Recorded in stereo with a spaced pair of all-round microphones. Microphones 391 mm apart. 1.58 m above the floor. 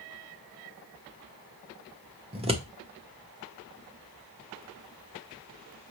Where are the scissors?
15° right (ahead or behind), 0.9 m.